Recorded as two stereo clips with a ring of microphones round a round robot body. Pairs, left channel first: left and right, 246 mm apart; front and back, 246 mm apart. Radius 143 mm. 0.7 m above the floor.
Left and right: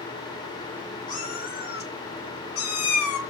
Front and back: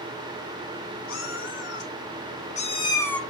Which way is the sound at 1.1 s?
35° left.